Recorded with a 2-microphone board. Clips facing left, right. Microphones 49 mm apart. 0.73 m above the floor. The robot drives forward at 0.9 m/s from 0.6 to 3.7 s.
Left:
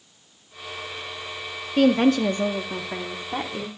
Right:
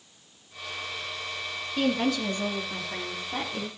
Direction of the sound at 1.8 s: 50° left (ahead or behind).